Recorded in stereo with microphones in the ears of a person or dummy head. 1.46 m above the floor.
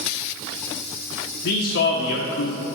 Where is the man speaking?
60° left (ahead or behind), 0.7 m.